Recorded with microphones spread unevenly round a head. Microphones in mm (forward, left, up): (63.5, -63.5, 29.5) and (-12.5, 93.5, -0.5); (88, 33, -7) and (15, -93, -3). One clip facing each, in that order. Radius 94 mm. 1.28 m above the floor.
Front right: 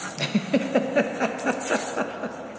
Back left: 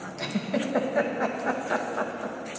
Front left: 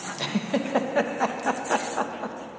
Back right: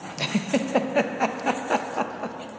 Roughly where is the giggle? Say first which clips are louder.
Front right 5 dB, back right 2 dB; ahead right.